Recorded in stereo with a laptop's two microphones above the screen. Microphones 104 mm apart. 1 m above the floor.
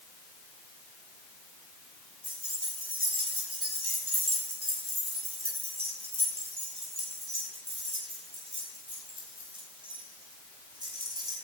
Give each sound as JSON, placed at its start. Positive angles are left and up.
{"t": 2.2, "sound": "keys jangling", "side_deg": -55, "distance_m": 6.5}